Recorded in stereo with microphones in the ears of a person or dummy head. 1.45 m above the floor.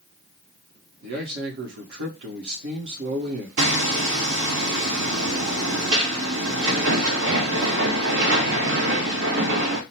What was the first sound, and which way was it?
A man speaking, 80° right.